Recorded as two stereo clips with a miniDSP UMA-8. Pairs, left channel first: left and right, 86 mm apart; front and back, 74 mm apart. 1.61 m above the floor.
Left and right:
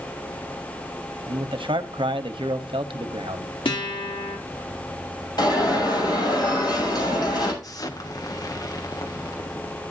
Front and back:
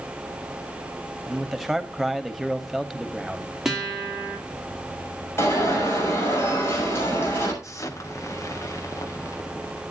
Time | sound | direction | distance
1.3 | a man speaking | 90° right | 1.2 m
3.6 | a guitar | 95° left | 3 m
5.4 | an alarm | 55° left | 7 m
7.6 | an explosion | 45° left | 1.2 m